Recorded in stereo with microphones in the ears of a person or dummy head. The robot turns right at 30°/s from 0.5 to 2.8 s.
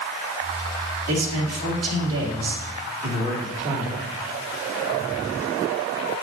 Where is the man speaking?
105° right, 2.5 m; by 4.0 s 55° right, 2.5 m.